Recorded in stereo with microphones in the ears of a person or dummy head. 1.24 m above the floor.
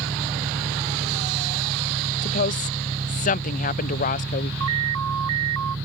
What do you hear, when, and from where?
0.0 s an engine running: 15° right (ahead or behind)
2.2 s a woman speaking: 35° left (ahead or behind)
4.6 s an alarm: 85° right